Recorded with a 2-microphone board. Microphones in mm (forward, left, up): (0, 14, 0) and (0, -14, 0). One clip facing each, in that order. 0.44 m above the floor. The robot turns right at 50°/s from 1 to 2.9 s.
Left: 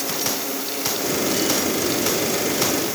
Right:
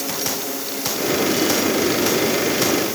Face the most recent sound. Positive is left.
No sound to turn to.